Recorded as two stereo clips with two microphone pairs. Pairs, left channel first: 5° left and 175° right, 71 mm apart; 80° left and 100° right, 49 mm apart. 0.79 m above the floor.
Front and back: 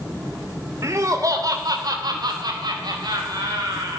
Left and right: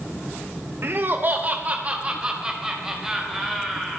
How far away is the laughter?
About 2.5 m.